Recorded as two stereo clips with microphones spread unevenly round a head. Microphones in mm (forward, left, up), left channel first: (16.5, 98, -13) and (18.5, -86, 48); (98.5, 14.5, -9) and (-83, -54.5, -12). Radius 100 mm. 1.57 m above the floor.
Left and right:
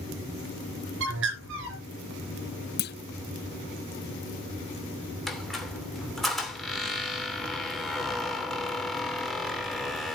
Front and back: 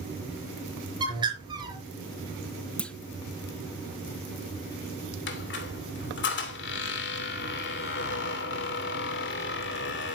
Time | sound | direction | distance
1.0 | a bird | 90° right | 5 m
2.8 | a clunk | 100° left | 0.7 m
5.3 | a squeak | 5° right | 2.5 m